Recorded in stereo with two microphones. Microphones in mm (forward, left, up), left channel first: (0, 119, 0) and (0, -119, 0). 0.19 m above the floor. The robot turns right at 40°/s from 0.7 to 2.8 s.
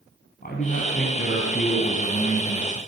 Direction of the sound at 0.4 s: 70° left.